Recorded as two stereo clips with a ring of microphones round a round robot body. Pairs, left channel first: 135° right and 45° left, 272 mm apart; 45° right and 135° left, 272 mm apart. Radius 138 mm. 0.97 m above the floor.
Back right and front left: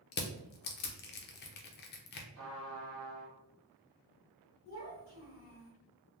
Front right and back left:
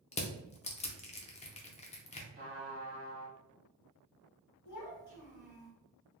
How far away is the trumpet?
About 1.3 m.